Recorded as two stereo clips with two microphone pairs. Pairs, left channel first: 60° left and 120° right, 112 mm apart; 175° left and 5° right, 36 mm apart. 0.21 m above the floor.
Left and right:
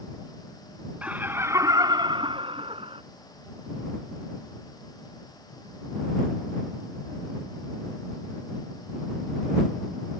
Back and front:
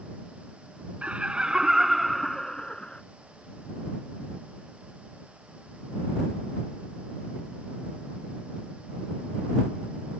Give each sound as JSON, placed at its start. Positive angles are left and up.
{"t": 1.0, "sound": "laughter", "azimuth_deg": -45}